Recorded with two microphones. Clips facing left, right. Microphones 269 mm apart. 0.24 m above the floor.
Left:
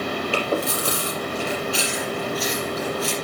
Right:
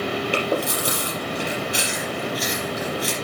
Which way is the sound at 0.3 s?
15° right (ahead or behind).